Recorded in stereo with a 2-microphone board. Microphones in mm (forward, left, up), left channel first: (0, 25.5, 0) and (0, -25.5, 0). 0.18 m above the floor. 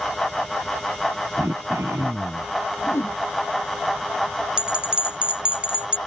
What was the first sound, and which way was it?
Throat clearing, 75° right (ahead or behind).